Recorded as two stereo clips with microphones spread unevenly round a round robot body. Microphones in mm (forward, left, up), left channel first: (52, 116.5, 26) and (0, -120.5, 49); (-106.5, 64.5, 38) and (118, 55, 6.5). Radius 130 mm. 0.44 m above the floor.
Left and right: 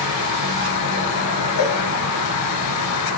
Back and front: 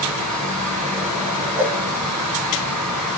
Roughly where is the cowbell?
Ahead.